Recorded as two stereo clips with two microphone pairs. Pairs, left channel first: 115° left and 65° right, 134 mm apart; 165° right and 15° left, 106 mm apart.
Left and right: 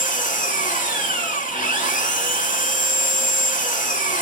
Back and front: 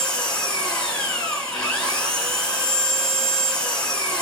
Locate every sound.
0.0 s an engine running: 115° left, 3.5 m